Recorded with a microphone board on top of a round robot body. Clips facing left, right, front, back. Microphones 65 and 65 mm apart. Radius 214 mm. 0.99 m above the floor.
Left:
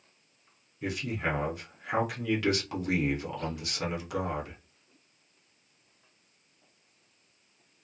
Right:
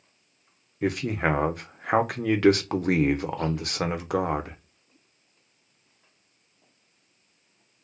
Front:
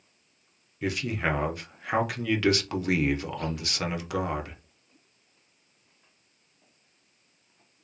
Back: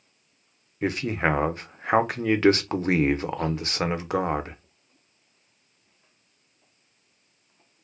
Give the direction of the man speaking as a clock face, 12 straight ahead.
4 o'clock.